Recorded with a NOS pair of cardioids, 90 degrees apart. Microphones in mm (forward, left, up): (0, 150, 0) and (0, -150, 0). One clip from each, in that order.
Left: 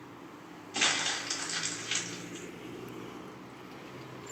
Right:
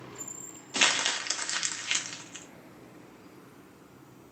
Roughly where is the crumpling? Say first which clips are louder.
Right 4 dB; ahead right.